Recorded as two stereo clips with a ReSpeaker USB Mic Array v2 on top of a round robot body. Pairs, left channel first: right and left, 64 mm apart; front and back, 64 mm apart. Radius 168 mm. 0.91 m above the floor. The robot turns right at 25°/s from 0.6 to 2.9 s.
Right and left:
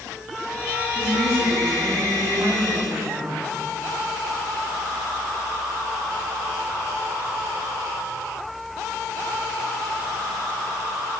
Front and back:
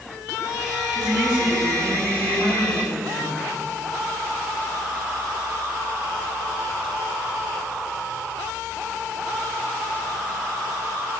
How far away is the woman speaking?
About 9.5 m.